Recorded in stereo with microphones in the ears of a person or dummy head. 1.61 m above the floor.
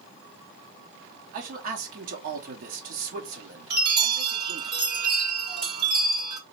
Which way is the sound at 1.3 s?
45° right (ahead or behind).